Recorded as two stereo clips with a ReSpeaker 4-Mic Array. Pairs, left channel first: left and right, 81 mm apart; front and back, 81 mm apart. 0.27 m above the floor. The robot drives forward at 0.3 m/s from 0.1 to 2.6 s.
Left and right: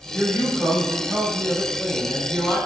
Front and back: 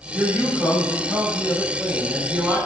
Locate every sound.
0.1 s a man speaking: 125° left, 1.4 m; by 2.6 s 155° left, 1.7 m